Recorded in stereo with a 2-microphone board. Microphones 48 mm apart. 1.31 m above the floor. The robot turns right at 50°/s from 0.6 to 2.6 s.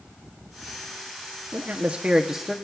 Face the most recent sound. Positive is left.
turn(degrees=5)